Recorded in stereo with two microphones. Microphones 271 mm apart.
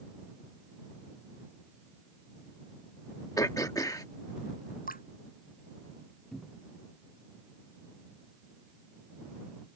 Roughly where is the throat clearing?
Centre.